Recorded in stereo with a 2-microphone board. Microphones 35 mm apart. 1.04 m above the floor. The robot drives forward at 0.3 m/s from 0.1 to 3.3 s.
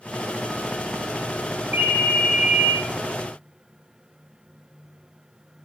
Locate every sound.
1.7 s a ringtone: 60° right (ahead or behind), 0.6 m; by 2.8 s 50° right (ahead or behind), 0.6 m